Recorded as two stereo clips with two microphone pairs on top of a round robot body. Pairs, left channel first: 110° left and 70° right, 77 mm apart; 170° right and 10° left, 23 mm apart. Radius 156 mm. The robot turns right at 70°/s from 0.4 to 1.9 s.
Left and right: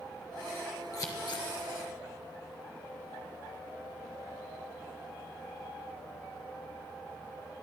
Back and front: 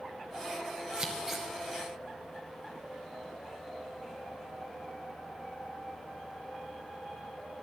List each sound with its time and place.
0.9 s scissors: 55° left, 1.4 m; by 1.5 s 95° left, 1.4 m